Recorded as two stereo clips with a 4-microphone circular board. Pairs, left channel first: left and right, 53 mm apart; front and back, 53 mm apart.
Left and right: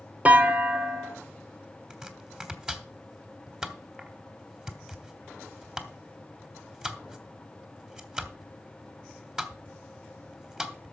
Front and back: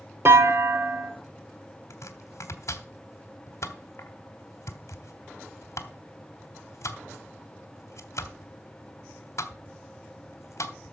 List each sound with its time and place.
0.2 s a clunk: 150° right, 1.3 m
1.9 s chopping: 15° right, 1.4 m